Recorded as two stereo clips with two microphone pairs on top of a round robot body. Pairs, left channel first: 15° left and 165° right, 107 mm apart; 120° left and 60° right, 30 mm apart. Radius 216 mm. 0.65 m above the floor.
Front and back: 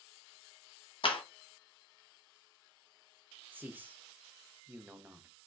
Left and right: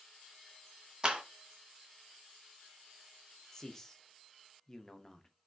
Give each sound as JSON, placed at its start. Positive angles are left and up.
{"t": 1.0, "sound": "a clap", "azimuth_deg": 0, "distance_m": 1.1}
{"t": 3.5, "sound": "a man speaking", "azimuth_deg": 150, "distance_m": 0.8}